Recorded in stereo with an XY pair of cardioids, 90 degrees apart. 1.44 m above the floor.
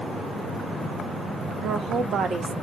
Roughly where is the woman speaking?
Ahead right.